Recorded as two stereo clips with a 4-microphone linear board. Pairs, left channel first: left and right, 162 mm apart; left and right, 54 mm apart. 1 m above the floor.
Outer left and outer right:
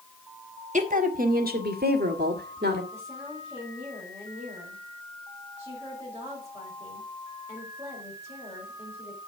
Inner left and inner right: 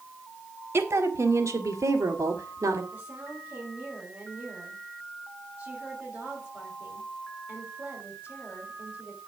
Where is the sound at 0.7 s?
50° right (ahead or behind), 1.6 m; by 2.8 s 85° right, 2 m.